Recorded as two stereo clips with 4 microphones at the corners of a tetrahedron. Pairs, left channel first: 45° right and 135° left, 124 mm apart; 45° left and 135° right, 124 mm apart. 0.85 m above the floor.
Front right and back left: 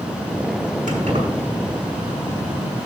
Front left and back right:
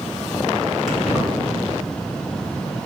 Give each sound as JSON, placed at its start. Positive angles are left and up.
{"t": 0.9, "sound": "keys jangling", "azimuth_deg": 135, "distance_m": 6.0}